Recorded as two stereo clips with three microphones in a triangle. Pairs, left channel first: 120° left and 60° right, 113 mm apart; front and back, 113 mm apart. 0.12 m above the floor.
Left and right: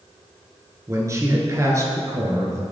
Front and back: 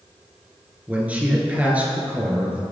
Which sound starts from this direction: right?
A man speaking, at 0.9 s.